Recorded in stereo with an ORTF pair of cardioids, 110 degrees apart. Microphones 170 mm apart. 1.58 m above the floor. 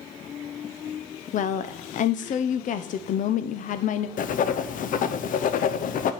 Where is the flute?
No flute in this recording.